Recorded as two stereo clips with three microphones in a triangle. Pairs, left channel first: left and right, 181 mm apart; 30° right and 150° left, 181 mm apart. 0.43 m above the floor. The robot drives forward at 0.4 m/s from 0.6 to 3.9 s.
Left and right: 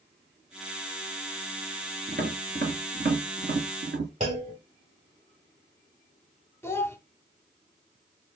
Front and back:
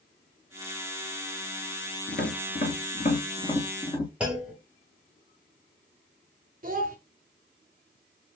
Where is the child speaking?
160° left, 0.7 m.